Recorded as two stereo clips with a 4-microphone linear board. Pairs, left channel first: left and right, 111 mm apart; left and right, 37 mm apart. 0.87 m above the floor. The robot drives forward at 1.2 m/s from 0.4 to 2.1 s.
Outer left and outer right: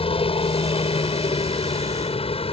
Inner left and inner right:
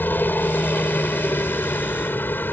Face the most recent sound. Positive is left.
turn(degrees=55)  # may be behind; listen again after turning